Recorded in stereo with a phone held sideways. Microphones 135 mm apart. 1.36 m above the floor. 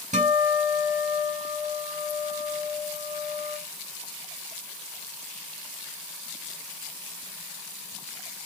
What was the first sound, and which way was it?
A guitar, 65° right (ahead or behind).